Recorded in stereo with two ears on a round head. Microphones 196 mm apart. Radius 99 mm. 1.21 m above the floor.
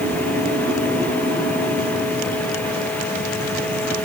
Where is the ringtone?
I don't hear a ringtone.